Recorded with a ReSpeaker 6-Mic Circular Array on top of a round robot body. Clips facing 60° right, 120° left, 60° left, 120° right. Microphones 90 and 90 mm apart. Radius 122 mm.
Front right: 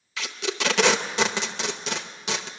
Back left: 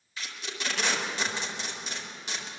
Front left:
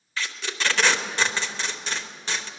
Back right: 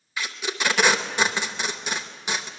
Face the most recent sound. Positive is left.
turn(degrees=-40)